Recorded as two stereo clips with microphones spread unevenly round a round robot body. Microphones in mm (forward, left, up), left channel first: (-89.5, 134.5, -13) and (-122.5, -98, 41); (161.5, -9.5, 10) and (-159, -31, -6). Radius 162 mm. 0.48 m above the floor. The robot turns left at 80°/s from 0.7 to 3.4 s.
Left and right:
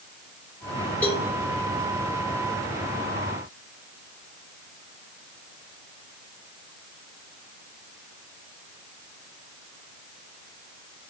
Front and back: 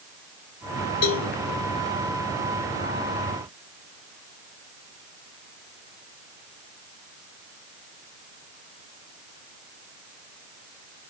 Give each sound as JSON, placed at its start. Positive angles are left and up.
{"t": 1.0, "sound": "a cowbell", "azimuth_deg": 15, "distance_m": 1.4}